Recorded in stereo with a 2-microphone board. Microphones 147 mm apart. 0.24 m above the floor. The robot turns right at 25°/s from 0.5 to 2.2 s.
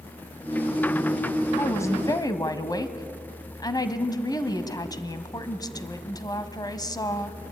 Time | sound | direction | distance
1.6 | a woman speaking | 15° left (ahead or behind) | 1.4 m